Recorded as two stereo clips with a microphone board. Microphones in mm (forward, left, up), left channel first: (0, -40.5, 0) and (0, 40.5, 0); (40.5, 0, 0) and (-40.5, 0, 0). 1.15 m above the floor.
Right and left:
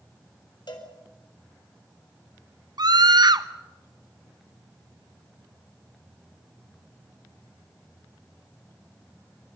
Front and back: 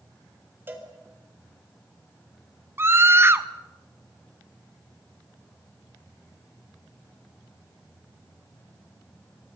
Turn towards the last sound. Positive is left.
turn(degrees=120)